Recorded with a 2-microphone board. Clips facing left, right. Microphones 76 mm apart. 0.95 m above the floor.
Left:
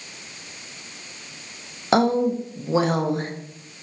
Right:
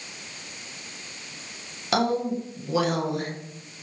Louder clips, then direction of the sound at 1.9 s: Left 5 dB; 30° left (ahead or behind).